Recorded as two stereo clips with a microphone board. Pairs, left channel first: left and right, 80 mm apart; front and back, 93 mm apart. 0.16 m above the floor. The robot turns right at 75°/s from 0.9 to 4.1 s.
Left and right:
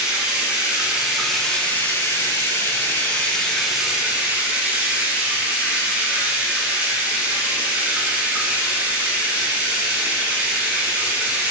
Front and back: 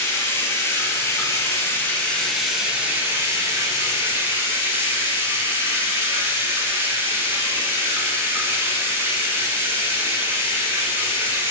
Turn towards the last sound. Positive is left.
turn(degrees=-145)